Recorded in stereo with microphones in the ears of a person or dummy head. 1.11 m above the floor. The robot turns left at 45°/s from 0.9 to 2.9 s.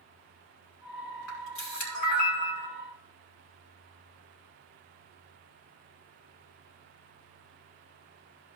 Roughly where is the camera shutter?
Left.